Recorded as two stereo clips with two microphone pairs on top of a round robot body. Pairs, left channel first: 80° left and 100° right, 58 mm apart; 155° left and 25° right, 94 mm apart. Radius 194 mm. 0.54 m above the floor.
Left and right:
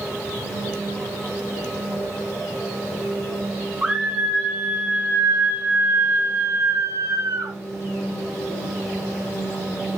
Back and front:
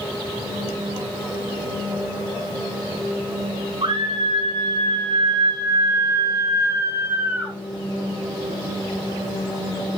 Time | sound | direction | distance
3.8 | a scream | 30° right | 3 m